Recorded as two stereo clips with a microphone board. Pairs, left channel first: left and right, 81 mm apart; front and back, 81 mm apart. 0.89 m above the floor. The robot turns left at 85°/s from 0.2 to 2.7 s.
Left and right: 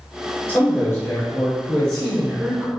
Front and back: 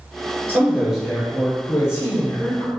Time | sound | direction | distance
0.5 | a man speaking | 135° left | 0.8 m